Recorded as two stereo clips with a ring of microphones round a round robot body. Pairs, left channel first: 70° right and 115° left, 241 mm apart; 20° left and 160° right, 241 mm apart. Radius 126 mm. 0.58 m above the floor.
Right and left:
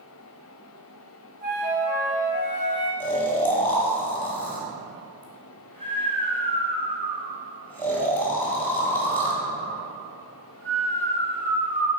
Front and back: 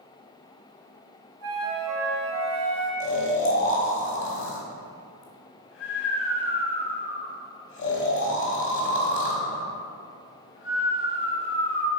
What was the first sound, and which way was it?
A flute, 170° left.